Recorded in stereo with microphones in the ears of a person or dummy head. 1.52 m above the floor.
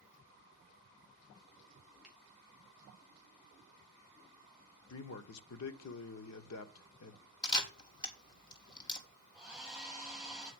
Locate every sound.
2.0 s a finger snap: 5° right (ahead or behind), 6.5 m
4.9 s a man speaking: 80° left, 1.0 m
7.4 s a camera shutter: 20° left (ahead or behind), 1.8 m
9.3 s a hair dryer: 10° right (ahead or behind), 6.5 m